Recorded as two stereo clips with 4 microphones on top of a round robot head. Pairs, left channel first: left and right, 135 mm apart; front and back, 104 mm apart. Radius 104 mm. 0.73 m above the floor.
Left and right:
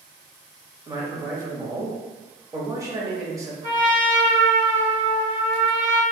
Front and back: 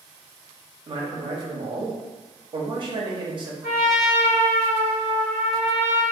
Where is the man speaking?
155° right, 0.8 m.